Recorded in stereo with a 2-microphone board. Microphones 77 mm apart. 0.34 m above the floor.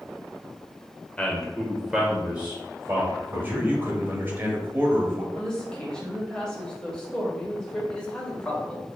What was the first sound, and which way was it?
A man speaking, 15° left (ahead or behind).